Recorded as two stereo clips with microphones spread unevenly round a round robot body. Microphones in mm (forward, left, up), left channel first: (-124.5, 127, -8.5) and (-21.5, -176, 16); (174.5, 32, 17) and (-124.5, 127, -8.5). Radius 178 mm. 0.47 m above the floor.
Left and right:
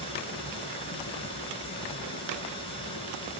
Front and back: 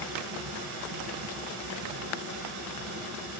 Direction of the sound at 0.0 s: 175° right.